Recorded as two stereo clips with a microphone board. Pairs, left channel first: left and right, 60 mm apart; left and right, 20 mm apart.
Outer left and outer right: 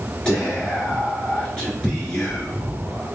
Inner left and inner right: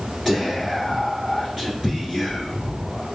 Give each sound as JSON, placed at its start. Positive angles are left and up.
{"t": 0.2, "sound": "whispering", "side_deg": 15, "distance_m": 1.3}